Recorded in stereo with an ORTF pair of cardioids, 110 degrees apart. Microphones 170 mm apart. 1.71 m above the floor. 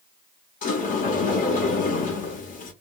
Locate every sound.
0.6 s a sliding door: 50° left, 1.0 m